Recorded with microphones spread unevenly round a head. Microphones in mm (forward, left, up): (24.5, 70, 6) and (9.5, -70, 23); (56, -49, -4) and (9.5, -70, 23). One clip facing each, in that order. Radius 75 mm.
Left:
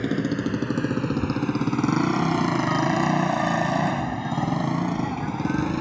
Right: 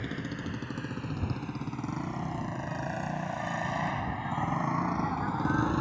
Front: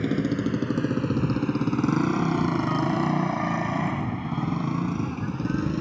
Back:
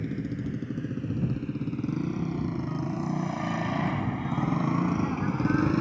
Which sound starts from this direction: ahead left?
A motorcycle, at 0.0 s.